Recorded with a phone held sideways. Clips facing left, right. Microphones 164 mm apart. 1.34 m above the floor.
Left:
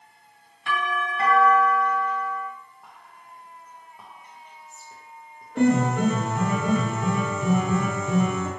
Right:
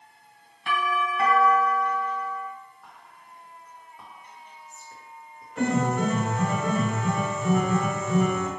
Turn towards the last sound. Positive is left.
turn(degrees=70)  # may be behind; listen again after turning